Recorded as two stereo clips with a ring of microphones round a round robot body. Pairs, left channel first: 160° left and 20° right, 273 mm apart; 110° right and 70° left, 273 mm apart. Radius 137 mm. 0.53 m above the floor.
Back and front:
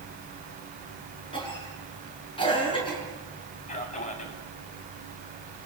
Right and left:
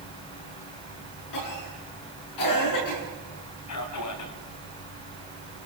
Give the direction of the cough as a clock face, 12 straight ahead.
4 o'clock.